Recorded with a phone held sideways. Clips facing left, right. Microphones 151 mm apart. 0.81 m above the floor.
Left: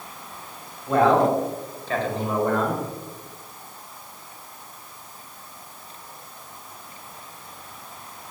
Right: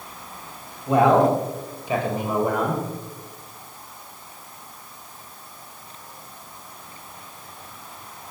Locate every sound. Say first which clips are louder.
0.9 s a man speaking: right 2 dB; 15° right (ahead or behind), 6 m; by 2.8 s 10° right (ahead or behind), 4 m